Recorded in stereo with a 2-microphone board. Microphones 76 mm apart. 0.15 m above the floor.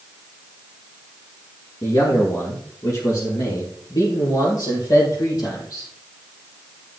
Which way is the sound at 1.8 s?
45° left (ahead or behind).